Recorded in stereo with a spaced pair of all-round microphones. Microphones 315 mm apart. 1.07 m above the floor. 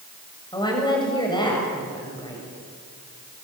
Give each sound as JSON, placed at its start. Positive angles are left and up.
{"t": 0.5, "sound": "a woman speaking", "side_deg": 15, "distance_m": 6.5}